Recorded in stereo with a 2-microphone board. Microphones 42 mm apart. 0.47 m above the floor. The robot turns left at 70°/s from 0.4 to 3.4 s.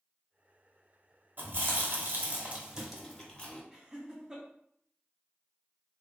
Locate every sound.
1.4 s chewing: 60° right (ahead or behind), 0.9 m; by 3.6 s 25° left (ahead or behind), 0.9 m
3.7 s laughter: 20° right (ahead or behind), 0.8 m